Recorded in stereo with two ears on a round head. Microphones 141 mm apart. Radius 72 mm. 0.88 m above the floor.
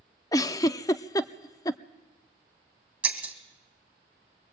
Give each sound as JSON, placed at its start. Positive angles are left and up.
{"t": 0.3, "sound": "a giggle", "side_deg": 20, "distance_m": 0.6}
{"t": 3.0, "sound": "breaking glass", "side_deg": -10, "distance_m": 2.5}